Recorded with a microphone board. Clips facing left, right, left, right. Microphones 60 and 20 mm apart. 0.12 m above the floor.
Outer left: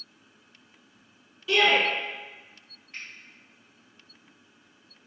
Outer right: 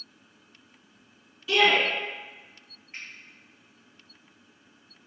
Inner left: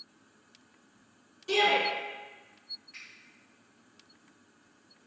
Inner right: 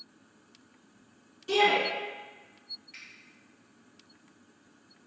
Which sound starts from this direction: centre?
A shout, at 1.5 s.